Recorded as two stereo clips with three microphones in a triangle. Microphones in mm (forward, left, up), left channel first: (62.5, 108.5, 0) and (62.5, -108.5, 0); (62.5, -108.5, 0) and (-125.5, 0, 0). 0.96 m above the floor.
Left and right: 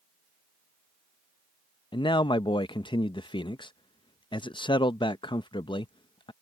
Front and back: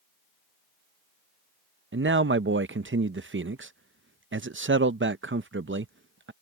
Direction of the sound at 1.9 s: 155° left.